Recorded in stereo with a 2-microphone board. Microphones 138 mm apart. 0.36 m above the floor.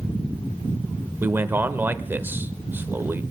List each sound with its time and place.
1.2 s a man speaking: 15° right (ahead or behind), 0.9 m